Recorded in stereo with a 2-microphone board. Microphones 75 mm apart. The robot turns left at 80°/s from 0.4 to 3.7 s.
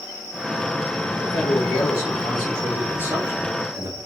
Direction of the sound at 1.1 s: 120° left.